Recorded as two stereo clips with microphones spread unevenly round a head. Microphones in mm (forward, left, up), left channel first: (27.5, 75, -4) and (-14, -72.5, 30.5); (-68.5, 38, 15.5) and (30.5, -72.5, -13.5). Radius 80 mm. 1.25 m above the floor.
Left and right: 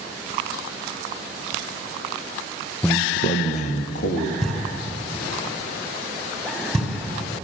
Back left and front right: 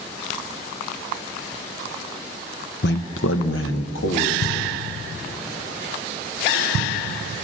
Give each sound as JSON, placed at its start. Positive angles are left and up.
{"t": 2.8, "sound": "a man speaking", "azimuth_deg": 150, "distance_m": 0.8}
{"t": 4.4, "sound": "knocking", "azimuth_deg": 165, "distance_m": 5.5}